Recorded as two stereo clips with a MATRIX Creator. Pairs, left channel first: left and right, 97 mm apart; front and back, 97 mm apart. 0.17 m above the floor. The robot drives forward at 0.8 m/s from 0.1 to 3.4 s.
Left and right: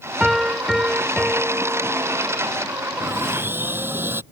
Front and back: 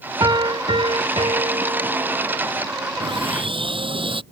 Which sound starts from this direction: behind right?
Sawing, at 3.0 s.